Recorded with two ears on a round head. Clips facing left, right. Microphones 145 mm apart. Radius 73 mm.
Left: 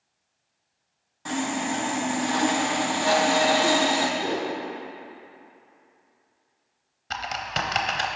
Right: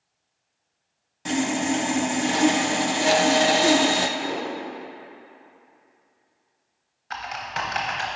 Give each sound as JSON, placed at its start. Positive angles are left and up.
{"t": 1.2, "sound": "sawing", "side_deg": -25, "distance_m": 0.5}
{"t": 4.2, "sound": "a whoosh", "side_deg": 30, "distance_m": 1.0}
{"t": 7.1, "sound": "typing on a keyboard", "side_deg": 40, "distance_m": 0.8}